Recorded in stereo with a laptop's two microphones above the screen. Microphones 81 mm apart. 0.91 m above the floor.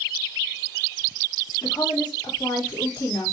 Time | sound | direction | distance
1.6 | a woman speaking | 65° left (ahead or behind) | 1.9 m